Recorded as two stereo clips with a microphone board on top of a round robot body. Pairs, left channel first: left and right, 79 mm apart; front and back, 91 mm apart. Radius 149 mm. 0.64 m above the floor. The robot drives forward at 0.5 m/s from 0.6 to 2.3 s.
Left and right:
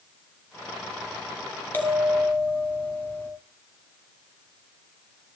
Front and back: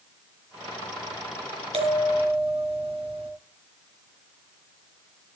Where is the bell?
160° left, 4 m.